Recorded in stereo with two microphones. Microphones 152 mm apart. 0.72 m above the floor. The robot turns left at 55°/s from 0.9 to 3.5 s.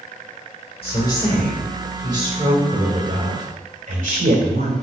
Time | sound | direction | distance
0.8 | a woman speaking | 40° left | 4 m